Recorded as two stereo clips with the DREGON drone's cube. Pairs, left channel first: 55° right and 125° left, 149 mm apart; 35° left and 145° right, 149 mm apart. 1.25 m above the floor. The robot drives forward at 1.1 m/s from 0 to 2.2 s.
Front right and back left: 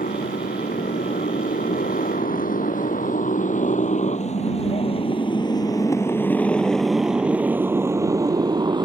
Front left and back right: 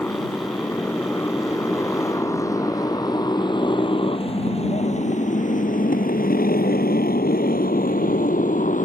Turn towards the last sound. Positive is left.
turn(degrees=65)